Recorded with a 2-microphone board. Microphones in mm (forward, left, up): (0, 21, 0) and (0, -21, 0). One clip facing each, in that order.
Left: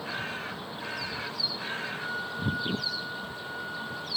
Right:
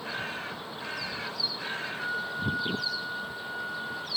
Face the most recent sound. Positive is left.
turn(degrees=-15)  # may be behind; listen again after turning